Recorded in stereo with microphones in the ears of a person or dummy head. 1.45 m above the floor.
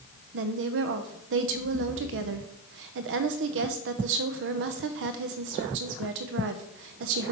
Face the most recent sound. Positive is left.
turn(degrees=-65)  # may be behind; listen again after turning